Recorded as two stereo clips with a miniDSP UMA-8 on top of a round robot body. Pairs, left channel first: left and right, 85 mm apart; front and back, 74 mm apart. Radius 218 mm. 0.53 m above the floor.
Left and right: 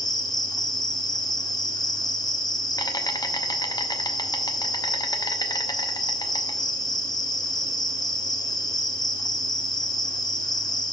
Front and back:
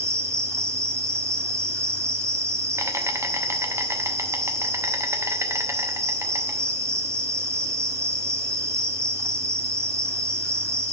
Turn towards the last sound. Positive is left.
turn(degrees=130)